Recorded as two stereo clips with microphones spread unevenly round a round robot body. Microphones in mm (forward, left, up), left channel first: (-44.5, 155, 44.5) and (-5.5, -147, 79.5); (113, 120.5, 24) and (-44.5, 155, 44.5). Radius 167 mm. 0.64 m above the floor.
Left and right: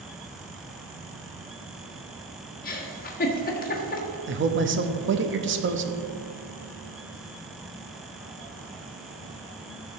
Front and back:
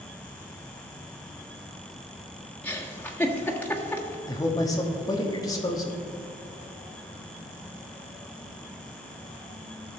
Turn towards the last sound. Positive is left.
turn(degrees=-50)